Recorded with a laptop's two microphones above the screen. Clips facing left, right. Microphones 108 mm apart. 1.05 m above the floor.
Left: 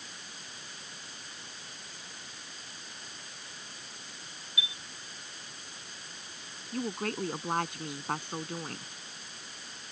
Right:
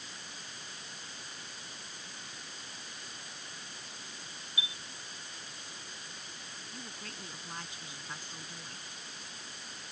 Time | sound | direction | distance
4.6 | a chime | 40° right (ahead or behind) | ?
6.7 | a woman speaking | 60° left (ahead or behind) | ?